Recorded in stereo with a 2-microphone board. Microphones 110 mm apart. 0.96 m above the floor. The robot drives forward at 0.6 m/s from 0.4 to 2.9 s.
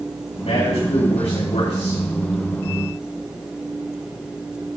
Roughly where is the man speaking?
Left.